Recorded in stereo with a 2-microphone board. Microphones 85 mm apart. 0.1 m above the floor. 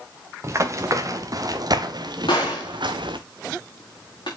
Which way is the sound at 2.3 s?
75° left (ahead or behind).